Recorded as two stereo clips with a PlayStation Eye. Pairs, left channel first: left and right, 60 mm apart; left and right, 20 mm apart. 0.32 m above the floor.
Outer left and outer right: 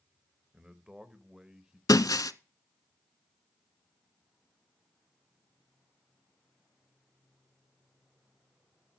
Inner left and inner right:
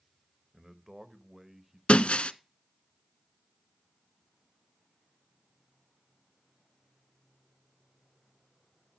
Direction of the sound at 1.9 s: 75° left (ahead or behind).